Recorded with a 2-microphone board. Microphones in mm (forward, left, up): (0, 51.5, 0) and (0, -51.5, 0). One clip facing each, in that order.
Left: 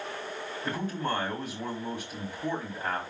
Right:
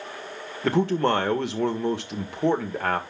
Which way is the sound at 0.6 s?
70° right (ahead or behind).